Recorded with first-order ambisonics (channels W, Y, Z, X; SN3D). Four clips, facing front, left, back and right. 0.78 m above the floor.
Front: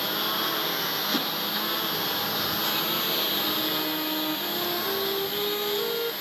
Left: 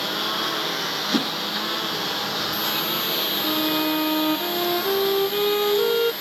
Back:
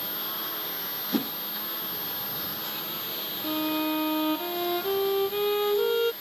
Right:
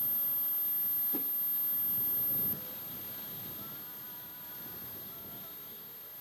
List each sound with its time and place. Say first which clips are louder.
0.0 s a lawn mower: left 23 dB, front 8 dB; 65° left; by 6.2 s 60° left
1.1 s a whoosh: left 19 dB, back 2 dB; 105° left
3.4 s a violin: left 28 dB, front 1 dB; 105° left